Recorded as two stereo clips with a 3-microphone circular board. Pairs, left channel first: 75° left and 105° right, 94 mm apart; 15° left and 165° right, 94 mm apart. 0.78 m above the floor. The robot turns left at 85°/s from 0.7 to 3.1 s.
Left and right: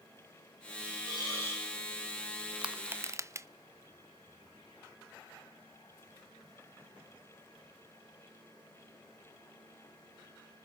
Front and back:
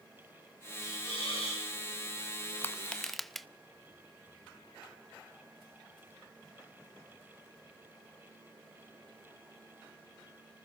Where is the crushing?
30° right, 0.5 m; by 3.5 s 70° right, 0.5 m.